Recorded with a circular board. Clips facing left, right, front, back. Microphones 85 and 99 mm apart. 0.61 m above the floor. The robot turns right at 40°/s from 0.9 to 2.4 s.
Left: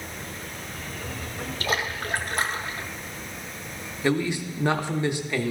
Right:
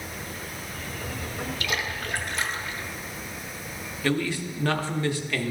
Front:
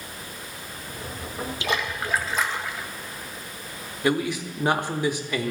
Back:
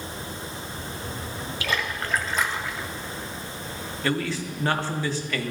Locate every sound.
1.6 s a splash: 55° left, 0.7 m; by 2.9 s 90° left, 0.7 m
4.0 s a man speaking: 50° left, 0.6 m